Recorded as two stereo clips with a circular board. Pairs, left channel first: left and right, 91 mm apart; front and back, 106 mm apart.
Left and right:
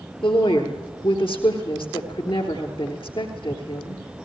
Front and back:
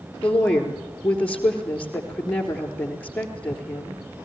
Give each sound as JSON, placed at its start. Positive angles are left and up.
{"t": 0.2, "sound": "a woman speaking", "azimuth_deg": 80, "distance_m": 3.5}